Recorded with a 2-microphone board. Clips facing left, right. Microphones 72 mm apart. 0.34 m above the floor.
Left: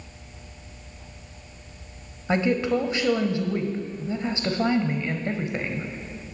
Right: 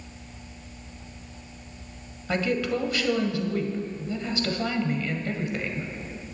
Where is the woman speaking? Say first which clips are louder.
Left 3 dB; 25° left (ahead or behind), 1.3 m.